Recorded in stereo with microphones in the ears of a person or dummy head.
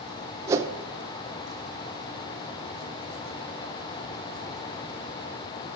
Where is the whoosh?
15° right (ahead or behind), 0.7 m.